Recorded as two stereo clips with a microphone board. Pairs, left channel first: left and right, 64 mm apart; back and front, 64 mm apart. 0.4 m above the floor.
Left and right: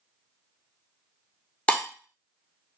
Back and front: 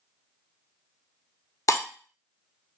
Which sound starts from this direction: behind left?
Breaking glass, at 1.7 s.